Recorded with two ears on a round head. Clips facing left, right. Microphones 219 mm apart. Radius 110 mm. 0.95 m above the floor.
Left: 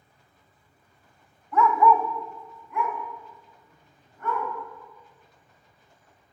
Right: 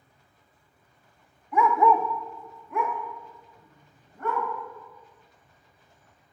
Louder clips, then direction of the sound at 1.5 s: Left 1 dB; 10° right (ahead or behind).